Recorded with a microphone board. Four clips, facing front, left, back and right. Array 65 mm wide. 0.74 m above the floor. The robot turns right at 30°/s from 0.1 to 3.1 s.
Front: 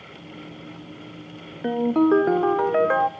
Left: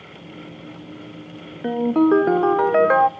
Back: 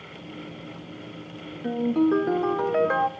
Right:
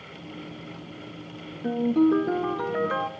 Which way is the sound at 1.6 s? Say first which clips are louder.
Left 4 dB, front 3 dB; 40° left.